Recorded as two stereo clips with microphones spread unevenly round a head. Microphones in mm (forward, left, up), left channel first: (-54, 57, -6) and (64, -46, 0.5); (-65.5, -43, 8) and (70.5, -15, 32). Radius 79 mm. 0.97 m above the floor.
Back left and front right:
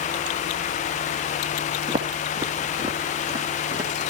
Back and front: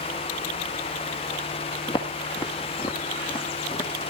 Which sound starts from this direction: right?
Footsteps, at 1.9 s.